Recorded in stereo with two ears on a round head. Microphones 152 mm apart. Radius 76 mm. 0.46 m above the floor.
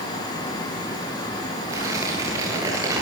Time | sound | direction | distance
1.7 | tearing paper | 20° right (ahead or behind) | 9.5 m